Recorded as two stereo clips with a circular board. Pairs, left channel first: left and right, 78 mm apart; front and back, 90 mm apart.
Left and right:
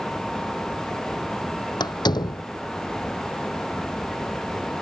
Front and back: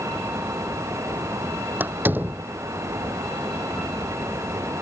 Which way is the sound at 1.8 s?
110° left.